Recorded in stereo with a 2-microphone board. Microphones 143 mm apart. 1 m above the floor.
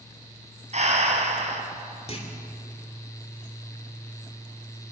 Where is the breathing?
55° right (ahead or behind), 3.5 m.